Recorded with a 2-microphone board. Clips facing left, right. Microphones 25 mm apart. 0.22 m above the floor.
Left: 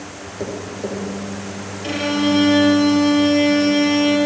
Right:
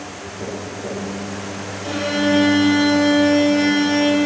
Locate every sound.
0.4 s tapping: 50° left (ahead or behind), 3.5 m
1.8 s a violin: 35° left (ahead or behind), 2.5 m